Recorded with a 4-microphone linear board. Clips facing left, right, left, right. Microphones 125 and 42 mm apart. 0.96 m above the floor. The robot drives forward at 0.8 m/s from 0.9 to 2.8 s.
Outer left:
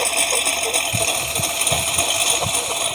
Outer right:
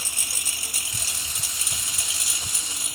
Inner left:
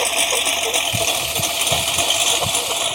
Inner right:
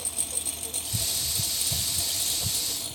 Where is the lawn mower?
80° left; by 3.0 s 75° left (ahead or behind).